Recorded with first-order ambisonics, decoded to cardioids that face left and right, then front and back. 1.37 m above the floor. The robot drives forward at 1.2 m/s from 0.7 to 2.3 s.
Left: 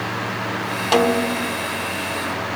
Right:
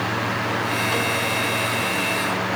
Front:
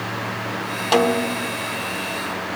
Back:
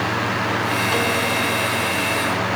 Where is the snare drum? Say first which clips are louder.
Left 4 dB, front 1 dB; 55° left; by 1.6 s 90° left.